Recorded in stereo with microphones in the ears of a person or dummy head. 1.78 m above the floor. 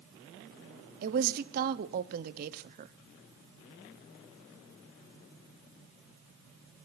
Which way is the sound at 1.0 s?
45° right (ahead or behind).